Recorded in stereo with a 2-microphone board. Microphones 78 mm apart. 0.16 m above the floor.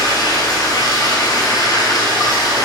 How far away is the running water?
About 1.9 m.